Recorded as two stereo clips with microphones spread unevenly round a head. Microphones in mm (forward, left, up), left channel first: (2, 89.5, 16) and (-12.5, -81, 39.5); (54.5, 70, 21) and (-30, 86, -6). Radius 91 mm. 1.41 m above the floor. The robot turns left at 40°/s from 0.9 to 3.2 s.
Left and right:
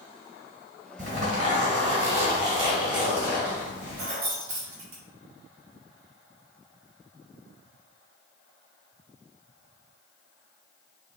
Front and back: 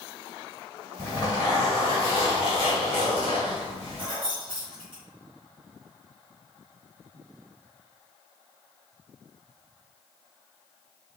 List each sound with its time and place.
1.0 s a zipper: 80° right, 1.5 m; by 4.0 s 165° right, 1.5 m
4.0 s keys jangling: 65° right, 1.0 m